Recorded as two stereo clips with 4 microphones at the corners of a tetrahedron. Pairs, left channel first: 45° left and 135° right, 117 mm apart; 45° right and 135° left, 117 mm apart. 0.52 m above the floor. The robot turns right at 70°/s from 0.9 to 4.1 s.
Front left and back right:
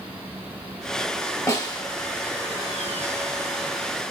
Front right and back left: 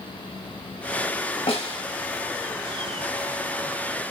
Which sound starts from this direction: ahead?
A snare drum, at 1.5 s.